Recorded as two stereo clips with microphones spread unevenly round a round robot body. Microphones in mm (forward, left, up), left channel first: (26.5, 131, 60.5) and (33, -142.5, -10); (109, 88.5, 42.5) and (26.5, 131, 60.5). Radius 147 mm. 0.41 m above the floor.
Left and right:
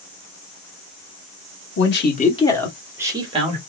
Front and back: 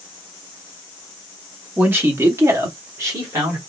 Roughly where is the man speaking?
Left.